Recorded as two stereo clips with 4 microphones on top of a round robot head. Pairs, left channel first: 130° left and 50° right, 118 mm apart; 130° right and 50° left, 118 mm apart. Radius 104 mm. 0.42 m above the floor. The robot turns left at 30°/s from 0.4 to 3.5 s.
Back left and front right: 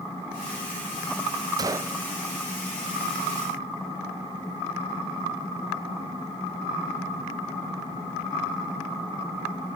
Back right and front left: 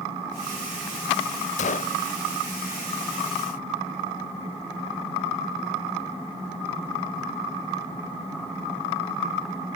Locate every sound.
1.6 s a gunshot: 110° right, 0.7 m; by 2.0 s 120° right, 0.7 m